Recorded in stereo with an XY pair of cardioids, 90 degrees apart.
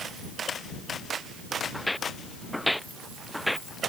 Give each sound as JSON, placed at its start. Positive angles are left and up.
{"t": 1.7, "sound": "footsteps", "azimuth_deg": 10}